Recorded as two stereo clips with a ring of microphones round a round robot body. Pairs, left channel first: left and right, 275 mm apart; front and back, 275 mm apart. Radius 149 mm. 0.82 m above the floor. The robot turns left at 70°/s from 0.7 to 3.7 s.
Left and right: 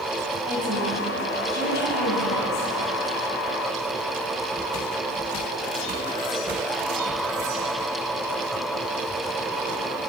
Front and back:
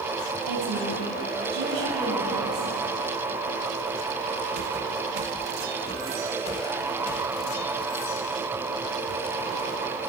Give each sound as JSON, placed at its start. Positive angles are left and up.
{"t": 0.5, "sound": "a woman speaking", "azimuth_deg": -160, "distance_m": 5.5}